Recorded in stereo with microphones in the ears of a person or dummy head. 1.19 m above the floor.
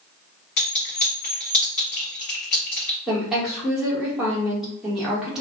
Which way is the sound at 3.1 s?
5° right (ahead or behind).